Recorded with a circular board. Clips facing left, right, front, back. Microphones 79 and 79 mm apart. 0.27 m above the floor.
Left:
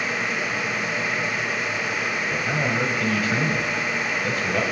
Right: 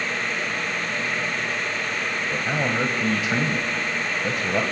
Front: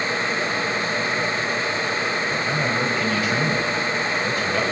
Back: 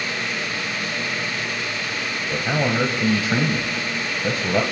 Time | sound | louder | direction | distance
2.3 | a man speaking | right 1 dB, back 1 dB | 150° right | 1.3 m